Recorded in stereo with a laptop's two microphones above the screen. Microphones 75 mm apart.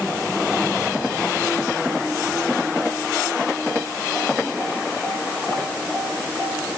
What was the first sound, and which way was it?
Only background noise.